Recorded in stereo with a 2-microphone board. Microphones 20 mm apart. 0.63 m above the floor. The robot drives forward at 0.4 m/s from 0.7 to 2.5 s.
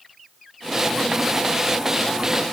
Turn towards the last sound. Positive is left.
No sound to turn to.